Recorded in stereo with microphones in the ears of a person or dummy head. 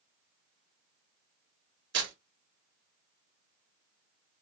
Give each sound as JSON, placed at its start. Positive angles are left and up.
{"t": 1.9, "sound": "tearing paper", "side_deg": -60, "distance_m": 1.6}